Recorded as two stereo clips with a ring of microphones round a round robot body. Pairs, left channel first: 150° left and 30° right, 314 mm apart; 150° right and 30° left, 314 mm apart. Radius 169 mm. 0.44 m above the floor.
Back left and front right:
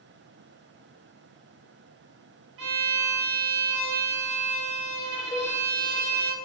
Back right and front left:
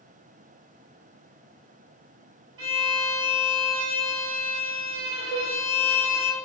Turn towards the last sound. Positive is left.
turn(degrees=70)